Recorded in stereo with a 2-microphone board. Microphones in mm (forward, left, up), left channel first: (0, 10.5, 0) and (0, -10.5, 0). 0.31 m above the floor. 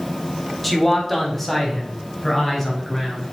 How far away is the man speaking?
About 1.3 m.